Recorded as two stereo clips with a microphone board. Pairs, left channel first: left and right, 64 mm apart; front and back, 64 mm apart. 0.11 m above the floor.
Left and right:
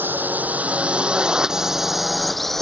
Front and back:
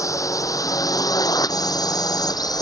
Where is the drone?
30° right; by 2.6 s 5° left.